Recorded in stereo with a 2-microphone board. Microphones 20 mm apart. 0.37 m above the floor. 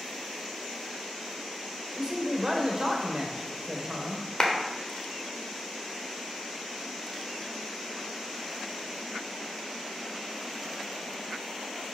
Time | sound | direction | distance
1.9 | a man speaking | 35° right (ahead or behind) | 1.3 m
4.4 | a clap | 20° left (ahead or behind) | 1.1 m